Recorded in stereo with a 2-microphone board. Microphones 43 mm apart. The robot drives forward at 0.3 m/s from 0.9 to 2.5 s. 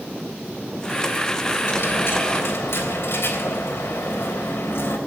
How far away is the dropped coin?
About 3 m.